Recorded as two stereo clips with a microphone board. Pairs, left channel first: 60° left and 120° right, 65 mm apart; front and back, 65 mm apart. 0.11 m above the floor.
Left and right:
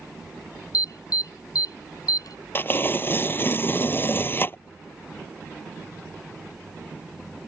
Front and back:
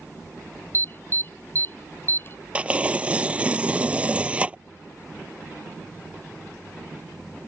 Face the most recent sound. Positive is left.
turn(degrees=110)